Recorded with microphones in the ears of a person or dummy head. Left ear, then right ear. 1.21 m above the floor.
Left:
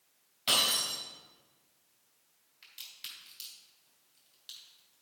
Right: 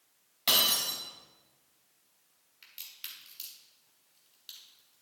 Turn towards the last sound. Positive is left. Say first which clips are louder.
# even
turn(degrees=-10)  # may be behind; listen again after turning